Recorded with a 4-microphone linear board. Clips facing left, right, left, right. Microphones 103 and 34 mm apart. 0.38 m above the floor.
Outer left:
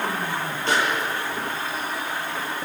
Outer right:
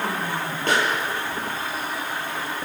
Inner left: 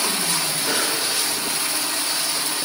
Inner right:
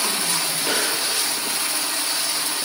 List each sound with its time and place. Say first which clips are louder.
0.7 s a pop: outer right 1 dB, even; 50° right (ahead or behind), 6.5 m